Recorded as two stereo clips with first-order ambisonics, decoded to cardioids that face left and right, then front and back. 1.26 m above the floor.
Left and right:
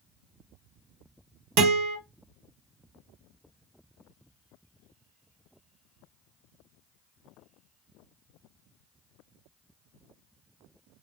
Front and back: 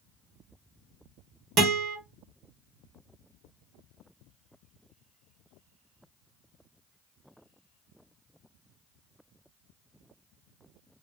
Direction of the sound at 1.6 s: 120° right.